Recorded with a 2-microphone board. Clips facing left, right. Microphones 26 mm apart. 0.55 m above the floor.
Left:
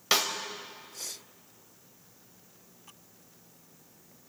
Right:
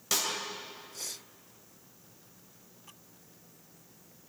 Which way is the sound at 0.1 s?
45° left (ahead or behind).